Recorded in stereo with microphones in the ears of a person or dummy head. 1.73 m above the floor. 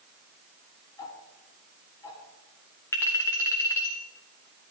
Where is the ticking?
30° left (ahead or behind), 3.5 m.